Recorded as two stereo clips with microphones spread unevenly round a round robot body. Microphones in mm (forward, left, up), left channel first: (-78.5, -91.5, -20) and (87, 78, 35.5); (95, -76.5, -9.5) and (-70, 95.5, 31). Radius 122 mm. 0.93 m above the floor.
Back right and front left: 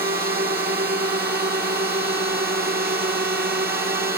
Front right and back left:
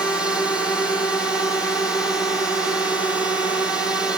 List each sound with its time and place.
0.0 s a drone: 30° left